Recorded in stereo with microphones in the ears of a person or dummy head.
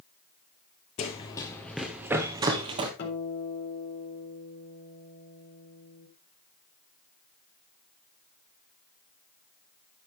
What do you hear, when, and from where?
1.0 s running footsteps: 30° left (ahead or behind), 1.6 m; by 2.9 s 35° right (ahead or behind), 1.9 m
3.0 s a guitar: 50° left (ahead or behind), 4 m